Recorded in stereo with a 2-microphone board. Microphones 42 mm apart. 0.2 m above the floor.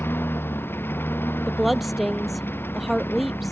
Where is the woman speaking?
Centre (ahead or behind).